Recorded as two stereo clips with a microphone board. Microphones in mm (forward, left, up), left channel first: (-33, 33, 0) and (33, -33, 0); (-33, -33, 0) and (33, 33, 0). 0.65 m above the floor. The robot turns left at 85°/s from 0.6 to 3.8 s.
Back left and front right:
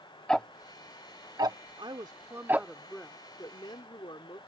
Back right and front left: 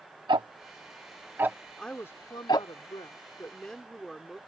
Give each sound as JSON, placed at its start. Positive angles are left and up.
{"t": 0.3, "sound": "ticking", "azimuth_deg": 50}
{"t": 1.8, "sound": "a woman speaking", "azimuth_deg": -50}